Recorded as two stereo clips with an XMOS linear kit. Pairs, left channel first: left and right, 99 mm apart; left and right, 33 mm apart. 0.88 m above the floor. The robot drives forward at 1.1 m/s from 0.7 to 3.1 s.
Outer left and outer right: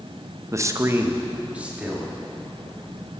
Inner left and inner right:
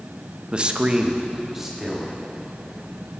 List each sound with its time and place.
0.5 s a man speaking: 30° right (ahead or behind), 0.5 m; by 2.1 s 10° right (ahead or behind), 1.8 m